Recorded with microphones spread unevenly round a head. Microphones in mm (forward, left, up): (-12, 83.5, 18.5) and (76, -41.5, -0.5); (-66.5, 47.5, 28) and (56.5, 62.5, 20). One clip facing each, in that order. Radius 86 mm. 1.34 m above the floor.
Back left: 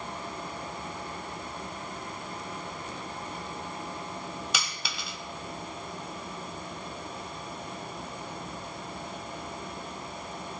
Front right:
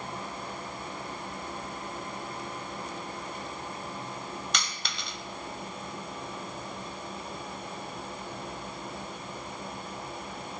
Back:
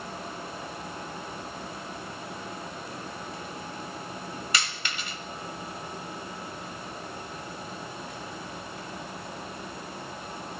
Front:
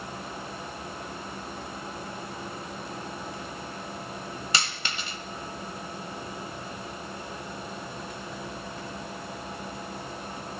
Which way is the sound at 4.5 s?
55° left.